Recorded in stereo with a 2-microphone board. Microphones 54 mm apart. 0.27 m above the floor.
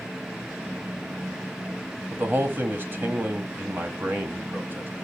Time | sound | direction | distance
2.1 | a man speaking | 40° right (ahead or behind) | 1.2 m